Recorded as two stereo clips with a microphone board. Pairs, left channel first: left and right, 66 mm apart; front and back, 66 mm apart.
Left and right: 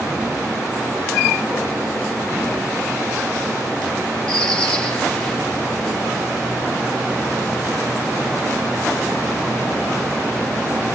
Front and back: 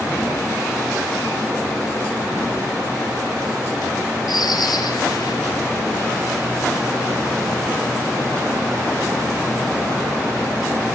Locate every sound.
4.3 s a bird: 10° left, 5.5 m